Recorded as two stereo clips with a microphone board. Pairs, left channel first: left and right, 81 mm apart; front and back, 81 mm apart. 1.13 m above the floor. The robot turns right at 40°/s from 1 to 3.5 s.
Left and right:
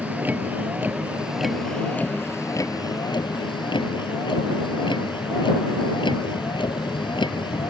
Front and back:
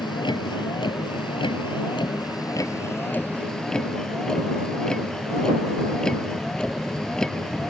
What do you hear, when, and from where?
0.0 s a vehicle: 20° right; by 7.7 s 80° left